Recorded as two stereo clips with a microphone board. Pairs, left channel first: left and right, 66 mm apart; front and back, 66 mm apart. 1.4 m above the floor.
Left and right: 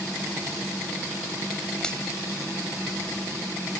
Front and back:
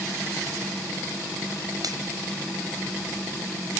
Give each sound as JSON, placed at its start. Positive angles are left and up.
{"t": 1.8, "sound": "a finger snap", "azimuth_deg": 170}